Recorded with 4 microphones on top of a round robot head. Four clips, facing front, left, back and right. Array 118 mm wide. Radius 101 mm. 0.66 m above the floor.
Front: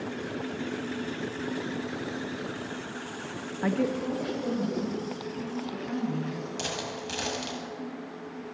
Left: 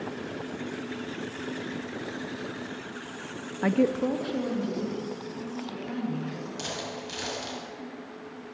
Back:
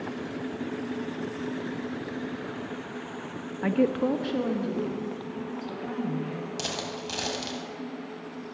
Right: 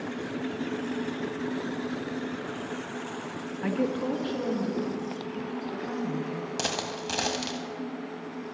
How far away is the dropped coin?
About 1.3 m.